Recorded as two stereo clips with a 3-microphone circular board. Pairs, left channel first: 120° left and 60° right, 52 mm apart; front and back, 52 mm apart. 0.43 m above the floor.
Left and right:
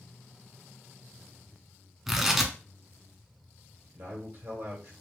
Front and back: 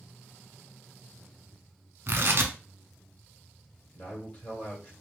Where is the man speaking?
55° right, 1.9 m.